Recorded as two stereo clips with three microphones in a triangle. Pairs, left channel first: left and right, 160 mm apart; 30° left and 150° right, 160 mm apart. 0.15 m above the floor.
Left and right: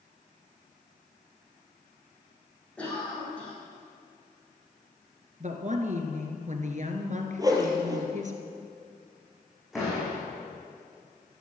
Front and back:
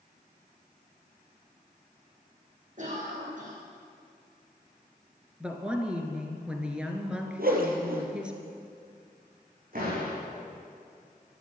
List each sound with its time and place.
2.8 s a cough: 175° left, 7.5 m
5.4 s a woman speaking: 70° right, 2 m
7.4 s a whoosh: 155° right, 2.5 m
9.7 s a door slam: straight behind, 7.5 m